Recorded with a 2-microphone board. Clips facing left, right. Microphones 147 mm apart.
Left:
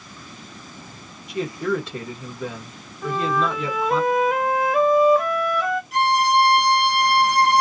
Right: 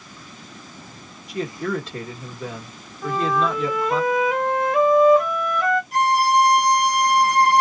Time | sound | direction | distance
1.3 | a man speaking | centre (ahead or behind) | 1.0 m
3.0 | a flute | centre (ahead or behind) | 0.8 m
5.9 | a violin | 40° right (ahead or behind) | 1.3 m